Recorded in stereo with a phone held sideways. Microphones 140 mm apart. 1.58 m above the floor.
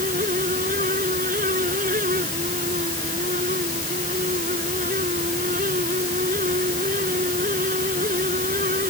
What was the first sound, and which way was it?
A fan, 85° right.